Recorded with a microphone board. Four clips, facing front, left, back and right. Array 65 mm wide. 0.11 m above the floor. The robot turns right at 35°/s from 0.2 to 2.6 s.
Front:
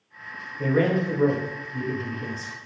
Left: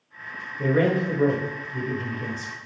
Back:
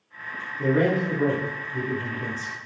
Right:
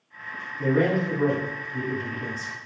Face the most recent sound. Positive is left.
turn(degrees=155)